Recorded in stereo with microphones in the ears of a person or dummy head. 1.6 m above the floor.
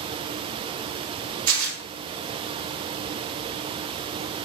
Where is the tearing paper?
50° right (ahead or behind), 2.5 m.